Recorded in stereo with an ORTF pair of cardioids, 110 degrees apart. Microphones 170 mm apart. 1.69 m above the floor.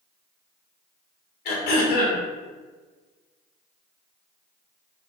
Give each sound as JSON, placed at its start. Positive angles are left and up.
{"t": 1.4, "sound": "throat clearing", "azimuth_deg": 70, "distance_m": 0.7}